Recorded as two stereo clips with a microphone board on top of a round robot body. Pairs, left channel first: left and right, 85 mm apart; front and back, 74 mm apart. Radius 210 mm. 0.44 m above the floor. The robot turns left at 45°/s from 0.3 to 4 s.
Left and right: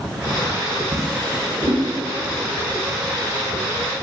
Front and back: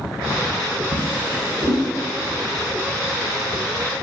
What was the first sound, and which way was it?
A drawer, 175° left.